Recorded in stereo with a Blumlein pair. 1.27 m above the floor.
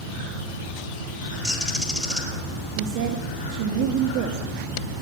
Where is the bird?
5° left, 4 m.